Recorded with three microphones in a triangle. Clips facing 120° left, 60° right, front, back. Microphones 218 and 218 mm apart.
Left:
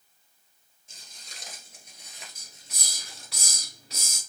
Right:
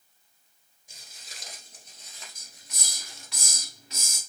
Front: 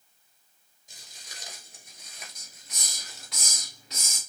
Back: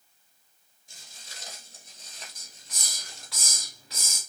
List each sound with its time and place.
0.9 s footsteps: 10° right, 1.6 m; by 3.3 s 85° left, 2 m
2.4 s a hiss: 70° left, 2.5 m